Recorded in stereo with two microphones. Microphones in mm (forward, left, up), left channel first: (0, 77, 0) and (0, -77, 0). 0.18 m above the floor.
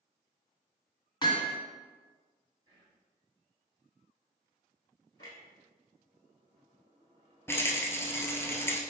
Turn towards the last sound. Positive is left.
turn(degrees=15)  # may be behind; listen again after turning